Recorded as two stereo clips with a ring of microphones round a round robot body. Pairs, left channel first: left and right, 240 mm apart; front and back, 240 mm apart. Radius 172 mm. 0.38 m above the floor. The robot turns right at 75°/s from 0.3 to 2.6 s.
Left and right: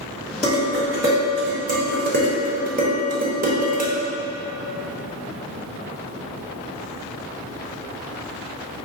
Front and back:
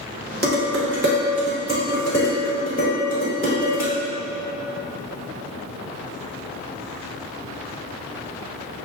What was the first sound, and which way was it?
Dishes clattering, 150° left.